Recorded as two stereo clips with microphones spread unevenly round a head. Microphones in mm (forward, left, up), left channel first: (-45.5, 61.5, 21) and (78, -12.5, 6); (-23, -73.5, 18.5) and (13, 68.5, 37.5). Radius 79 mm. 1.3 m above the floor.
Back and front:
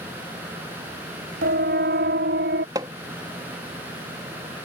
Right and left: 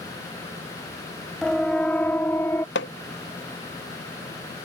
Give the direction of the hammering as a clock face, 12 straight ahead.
3 o'clock.